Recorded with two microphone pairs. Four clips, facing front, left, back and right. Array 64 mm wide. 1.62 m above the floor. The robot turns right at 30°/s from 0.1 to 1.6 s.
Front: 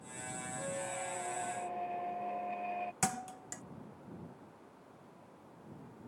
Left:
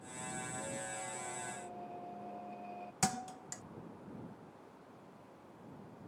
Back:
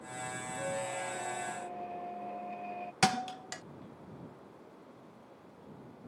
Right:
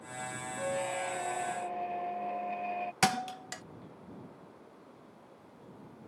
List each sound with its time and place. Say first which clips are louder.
0.6 s a squeak: right 9 dB, back 4 dB; 100° right; by 2.9 s 70° right
3.0 s a thud: right 7 dB, back 7 dB; 145° right